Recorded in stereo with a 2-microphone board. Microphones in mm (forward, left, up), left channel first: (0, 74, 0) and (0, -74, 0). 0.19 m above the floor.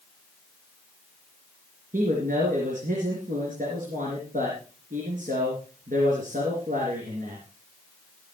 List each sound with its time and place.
1.9 s a man speaking: 65° right (ahead or behind), 3.5 m